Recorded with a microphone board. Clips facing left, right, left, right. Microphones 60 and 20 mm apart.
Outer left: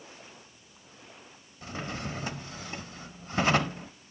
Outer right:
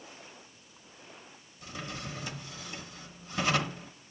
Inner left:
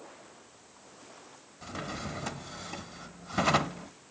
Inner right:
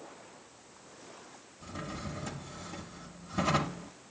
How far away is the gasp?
I don't hear a gasp.